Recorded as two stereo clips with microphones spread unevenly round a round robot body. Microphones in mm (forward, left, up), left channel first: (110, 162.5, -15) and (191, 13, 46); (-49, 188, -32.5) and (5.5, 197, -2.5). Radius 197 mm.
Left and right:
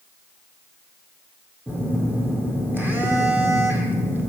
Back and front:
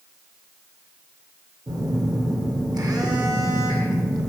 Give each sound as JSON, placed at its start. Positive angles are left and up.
{"t": 1.7, "sound": "a phone buzzing", "azimuth_deg": 25, "distance_m": 2.0}